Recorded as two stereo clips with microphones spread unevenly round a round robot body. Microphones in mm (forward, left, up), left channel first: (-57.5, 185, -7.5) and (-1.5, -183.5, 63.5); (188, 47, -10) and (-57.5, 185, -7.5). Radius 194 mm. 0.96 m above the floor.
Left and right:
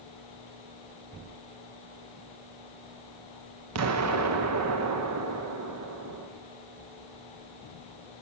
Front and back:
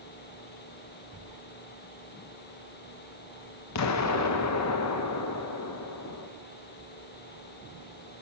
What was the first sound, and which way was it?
An explosion, 30° right.